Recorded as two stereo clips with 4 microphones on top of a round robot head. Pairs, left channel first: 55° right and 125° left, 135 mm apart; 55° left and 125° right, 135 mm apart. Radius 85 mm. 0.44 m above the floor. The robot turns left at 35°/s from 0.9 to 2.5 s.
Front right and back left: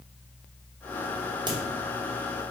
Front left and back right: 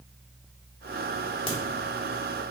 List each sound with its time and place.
1.5 s a crack: 85° left, 1.3 m; by 1.6 s 80° left, 1.3 m